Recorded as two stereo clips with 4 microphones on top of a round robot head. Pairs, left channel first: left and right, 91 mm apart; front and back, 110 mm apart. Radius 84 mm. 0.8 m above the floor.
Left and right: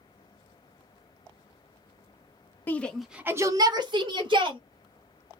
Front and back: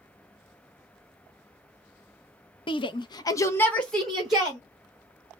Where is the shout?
25° left, 0.6 m; by 4.6 s 100° right, 0.9 m.